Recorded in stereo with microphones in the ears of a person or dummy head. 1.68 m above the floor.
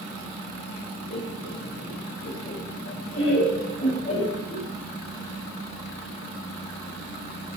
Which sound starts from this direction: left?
Laughter, at 1.1 s.